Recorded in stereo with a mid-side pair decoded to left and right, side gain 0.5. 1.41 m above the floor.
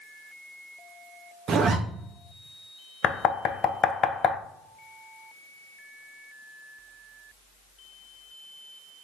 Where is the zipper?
55° right, 0.7 m.